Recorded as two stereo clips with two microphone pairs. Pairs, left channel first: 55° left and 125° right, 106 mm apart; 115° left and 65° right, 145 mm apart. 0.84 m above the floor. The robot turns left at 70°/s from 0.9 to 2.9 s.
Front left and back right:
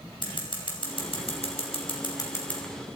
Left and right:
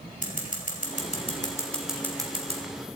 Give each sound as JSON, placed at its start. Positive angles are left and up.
{"t": 0.2, "sound": "scissors", "azimuth_deg": 95, "distance_m": 3.5}